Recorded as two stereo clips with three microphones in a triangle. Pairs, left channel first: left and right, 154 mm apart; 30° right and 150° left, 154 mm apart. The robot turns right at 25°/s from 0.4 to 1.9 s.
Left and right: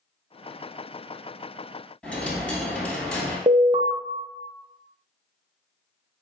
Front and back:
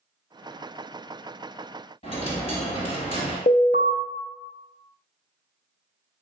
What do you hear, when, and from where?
2.0 s a dropped coin: 5° left, 1.4 m
3.5 s an alarm: 35° right, 0.5 m